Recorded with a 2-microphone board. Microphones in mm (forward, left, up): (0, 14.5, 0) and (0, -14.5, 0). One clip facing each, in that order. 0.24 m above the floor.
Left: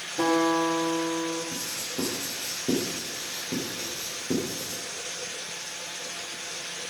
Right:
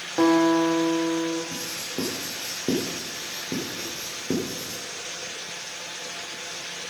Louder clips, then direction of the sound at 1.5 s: Right 1 dB; 30° right (ahead or behind).